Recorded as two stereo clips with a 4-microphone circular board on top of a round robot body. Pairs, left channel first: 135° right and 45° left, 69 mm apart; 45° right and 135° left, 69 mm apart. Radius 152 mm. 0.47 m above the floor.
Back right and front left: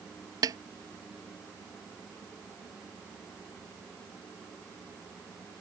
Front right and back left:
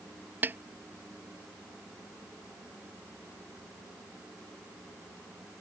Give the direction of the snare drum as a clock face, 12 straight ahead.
10 o'clock.